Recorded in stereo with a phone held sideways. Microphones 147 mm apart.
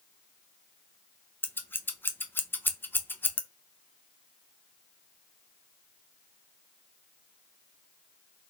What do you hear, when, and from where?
1.4 s scissors: 15° left (ahead or behind), 0.5 m